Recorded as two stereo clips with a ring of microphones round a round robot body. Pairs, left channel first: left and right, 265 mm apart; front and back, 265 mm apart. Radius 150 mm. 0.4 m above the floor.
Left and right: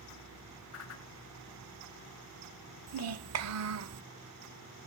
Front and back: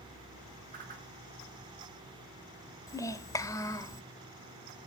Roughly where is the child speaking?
Right.